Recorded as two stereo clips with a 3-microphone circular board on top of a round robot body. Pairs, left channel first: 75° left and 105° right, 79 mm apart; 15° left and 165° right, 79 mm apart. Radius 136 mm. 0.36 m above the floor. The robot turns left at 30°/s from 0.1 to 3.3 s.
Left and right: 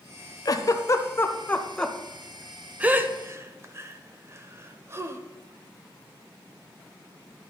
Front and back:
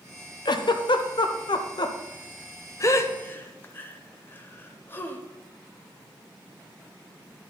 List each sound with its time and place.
0.5 s a giggle: 35° left, 0.9 m; by 5.2 s 50° right, 0.9 m